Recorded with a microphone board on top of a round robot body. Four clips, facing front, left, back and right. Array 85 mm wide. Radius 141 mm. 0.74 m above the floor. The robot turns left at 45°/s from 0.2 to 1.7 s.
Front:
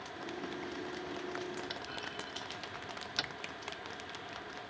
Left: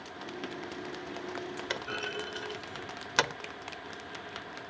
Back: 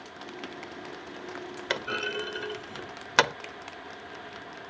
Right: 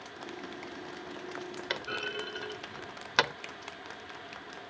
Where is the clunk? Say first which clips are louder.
Right 1 dB, back 11 dB; 170° right.